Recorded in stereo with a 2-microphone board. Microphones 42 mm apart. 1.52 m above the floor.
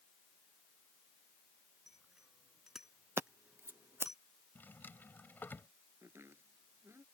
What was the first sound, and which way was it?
A bicycle bell, 10° right (ahead or behind).